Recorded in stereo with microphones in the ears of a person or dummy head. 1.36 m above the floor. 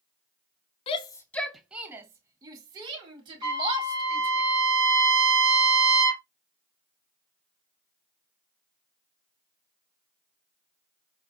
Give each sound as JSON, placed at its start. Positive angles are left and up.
{"t": 0.9, "sound": "a shout", "side_deg": 35, "distance_m": 0.5}
{"t": 3.4, "sound": "a trumpet", "side_deg": -20, "distance_m": 3.0}